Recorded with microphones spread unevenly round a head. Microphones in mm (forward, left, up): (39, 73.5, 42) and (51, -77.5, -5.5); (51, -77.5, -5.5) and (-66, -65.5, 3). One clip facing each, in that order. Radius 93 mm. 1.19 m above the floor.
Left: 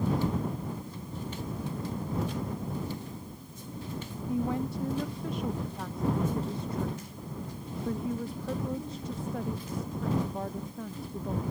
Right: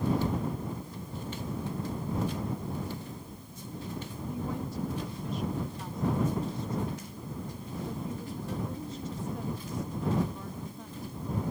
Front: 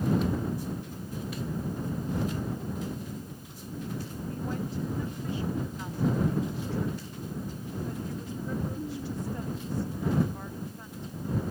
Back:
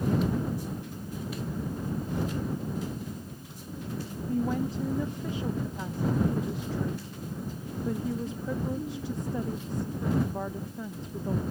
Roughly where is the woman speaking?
Behind left.